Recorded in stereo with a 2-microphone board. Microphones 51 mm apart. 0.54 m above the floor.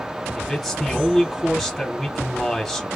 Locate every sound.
0.3 s a man speaking: centre (ahead or behind), 1.5 m